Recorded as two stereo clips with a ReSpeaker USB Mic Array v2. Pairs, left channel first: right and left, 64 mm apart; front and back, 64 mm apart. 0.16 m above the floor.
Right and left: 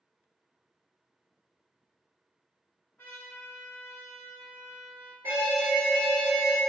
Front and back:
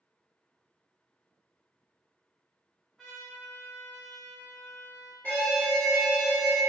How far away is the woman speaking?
No woman speaking in this recording.